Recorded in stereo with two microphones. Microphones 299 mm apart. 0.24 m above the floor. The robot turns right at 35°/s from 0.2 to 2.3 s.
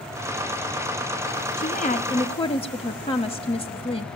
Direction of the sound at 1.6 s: 25° left (ahead or behind).